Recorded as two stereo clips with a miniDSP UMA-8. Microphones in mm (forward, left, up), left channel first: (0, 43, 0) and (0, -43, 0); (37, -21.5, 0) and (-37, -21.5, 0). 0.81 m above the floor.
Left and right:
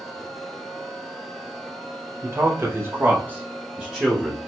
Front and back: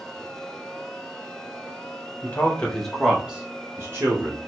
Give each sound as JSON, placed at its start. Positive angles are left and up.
{"t": 2.2, "sound": "a man speaking", "azimuth_deg": -50, "distance_m": 1.2}